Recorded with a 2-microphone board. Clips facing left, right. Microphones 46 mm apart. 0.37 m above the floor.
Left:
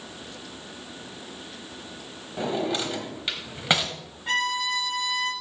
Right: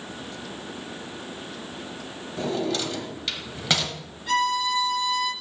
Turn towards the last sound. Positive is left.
turn(degrees=35)  # may be behind; listen again after turning